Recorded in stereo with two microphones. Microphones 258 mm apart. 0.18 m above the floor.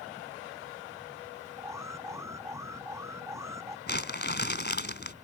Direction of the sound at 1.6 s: 10° right (ahead or behind).